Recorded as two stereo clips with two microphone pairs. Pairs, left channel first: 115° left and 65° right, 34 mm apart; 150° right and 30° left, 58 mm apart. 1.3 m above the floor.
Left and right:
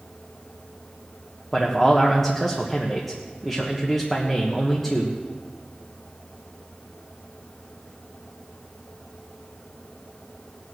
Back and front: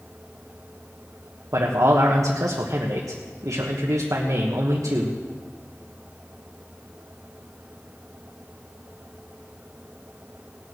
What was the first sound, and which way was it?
A man speaking, 35° left.